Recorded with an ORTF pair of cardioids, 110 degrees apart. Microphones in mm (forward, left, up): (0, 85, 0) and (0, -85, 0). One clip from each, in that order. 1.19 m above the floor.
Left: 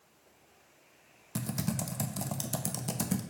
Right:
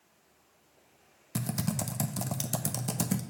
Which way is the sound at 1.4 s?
15° right.